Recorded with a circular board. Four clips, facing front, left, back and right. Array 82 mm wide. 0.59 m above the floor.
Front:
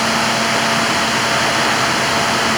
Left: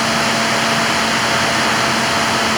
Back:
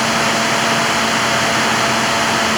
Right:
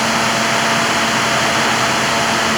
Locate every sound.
Only background noise.